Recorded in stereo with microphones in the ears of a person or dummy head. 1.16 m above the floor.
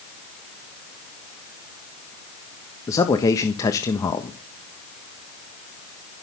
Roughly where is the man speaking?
Left.